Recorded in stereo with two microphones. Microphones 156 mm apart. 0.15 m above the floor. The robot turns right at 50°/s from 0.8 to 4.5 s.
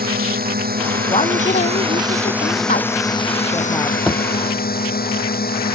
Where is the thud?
5° right (ahead or behind); by 4.2 s 15° right (ahead or behind).